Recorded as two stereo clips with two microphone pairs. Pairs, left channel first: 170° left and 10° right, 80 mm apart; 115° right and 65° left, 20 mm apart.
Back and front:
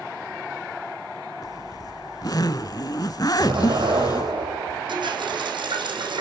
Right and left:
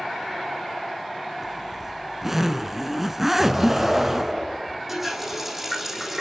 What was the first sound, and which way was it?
A zipper, 140° left.